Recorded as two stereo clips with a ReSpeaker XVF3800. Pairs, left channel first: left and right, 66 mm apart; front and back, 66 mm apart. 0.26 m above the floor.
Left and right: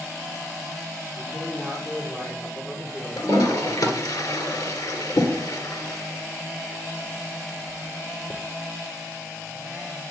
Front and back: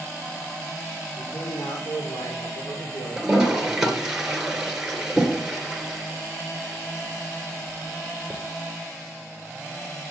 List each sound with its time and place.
1.2 s a man speaking: 35° left, 7 m; by 4.0 s 20° left, 3.5 m
3.2 s a toilet flushing: 100° left, 2.5 m